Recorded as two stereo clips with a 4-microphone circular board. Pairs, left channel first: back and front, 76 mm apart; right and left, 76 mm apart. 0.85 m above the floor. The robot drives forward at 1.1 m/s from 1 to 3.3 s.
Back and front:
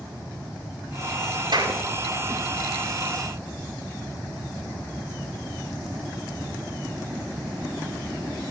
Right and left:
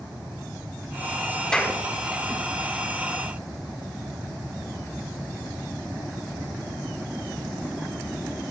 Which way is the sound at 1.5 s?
15° right.